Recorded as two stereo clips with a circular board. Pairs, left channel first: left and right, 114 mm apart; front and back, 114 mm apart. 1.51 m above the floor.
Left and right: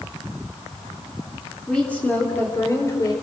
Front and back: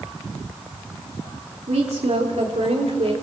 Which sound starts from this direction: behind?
A woman speaking, at 1.7 s.